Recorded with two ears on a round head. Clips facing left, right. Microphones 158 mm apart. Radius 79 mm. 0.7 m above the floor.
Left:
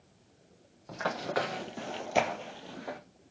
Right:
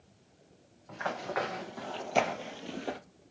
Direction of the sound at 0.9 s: 50° left (ahead or behind).